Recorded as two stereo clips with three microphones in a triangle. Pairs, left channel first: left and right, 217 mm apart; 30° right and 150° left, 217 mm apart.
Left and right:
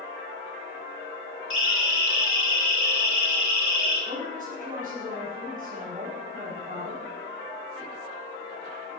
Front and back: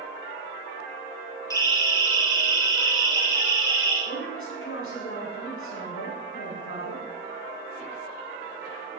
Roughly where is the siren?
Right.